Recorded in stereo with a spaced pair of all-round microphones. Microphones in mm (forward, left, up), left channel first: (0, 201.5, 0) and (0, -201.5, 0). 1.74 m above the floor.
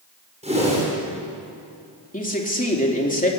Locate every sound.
0.4 s a whoosh: 15° right (ahead or behind), 7.5 m
2.1 s a man speaking: 20° left (ahead or behind), 3.5 m